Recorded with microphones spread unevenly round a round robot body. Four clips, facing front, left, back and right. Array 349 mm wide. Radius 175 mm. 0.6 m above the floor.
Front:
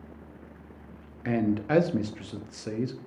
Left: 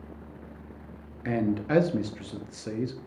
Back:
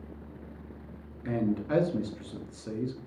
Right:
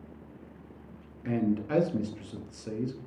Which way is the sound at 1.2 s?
55° left.